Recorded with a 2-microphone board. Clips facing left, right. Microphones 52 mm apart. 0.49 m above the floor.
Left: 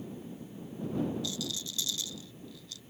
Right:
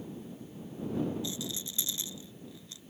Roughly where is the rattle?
Centre.